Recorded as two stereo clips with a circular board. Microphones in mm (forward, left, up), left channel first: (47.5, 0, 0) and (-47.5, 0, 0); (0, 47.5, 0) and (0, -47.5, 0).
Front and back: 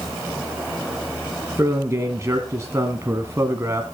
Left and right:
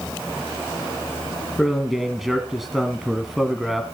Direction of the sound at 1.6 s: 175° right.